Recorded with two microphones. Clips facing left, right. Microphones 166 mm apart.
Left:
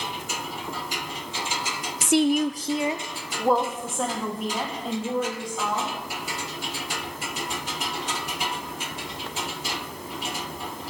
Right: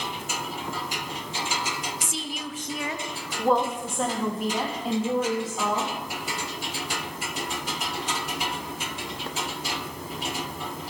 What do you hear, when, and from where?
2.0 s a woman speaking: 75° left (ahead or behind), 0.5 m; by 5.9 s 5° right (ahead or behind), 3.5 m